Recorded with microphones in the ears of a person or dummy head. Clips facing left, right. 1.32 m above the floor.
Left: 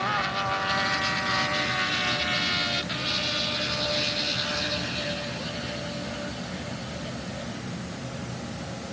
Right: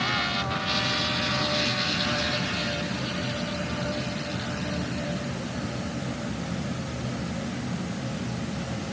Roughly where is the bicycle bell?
No bicycle bell in this recording.